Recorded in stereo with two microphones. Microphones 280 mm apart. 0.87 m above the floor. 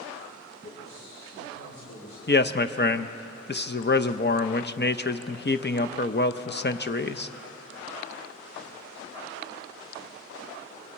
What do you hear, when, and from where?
0.6 s a man speaking: 45° left (ahead or behind), 3.5 m
2.3 s a man speaking: 35° left (ahead or behind), 0.6 m